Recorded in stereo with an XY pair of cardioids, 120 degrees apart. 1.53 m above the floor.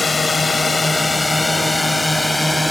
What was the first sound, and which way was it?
A drone, 20° left.